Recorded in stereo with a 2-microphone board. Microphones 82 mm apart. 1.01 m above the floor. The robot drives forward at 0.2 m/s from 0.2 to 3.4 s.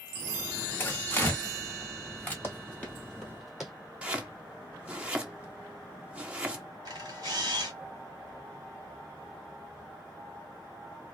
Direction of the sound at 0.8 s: 25° left (ahead or behind).